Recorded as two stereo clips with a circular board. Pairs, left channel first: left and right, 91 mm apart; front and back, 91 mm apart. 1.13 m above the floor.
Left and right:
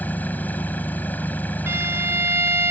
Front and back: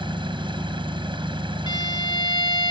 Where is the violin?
30° right.